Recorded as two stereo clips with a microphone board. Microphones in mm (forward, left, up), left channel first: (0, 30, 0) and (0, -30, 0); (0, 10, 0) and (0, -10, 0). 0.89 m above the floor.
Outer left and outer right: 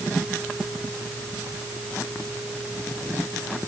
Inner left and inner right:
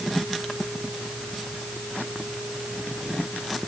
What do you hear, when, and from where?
Only background noise.